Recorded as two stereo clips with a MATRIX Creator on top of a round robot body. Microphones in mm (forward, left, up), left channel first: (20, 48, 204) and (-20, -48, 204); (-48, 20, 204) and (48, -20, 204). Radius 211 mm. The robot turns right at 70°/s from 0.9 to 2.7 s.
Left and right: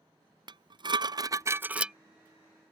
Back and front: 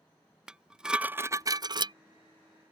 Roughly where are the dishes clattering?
Right.